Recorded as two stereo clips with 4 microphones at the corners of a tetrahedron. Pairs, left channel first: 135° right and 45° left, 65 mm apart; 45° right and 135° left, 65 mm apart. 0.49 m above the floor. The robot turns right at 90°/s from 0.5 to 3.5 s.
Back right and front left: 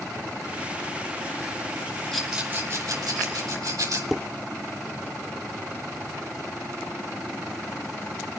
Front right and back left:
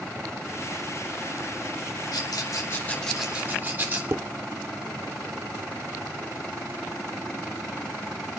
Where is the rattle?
50° right, 3.5 m; by 4.0 s 75° left, 3.5 m.